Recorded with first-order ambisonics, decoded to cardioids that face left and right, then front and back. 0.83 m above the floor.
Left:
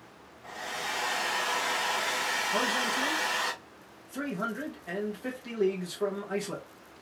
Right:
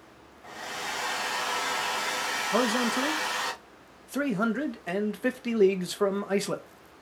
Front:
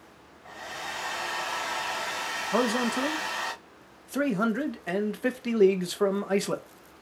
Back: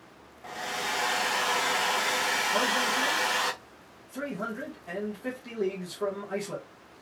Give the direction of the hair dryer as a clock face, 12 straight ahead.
6 o'clock.